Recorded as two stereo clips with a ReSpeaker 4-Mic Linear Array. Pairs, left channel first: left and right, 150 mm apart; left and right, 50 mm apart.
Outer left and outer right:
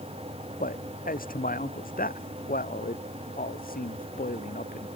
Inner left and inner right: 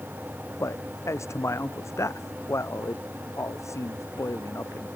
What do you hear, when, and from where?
0.6 s a man speaking: 70° left (ahead or behind); by 4.9 s 75° left (ahead or behind)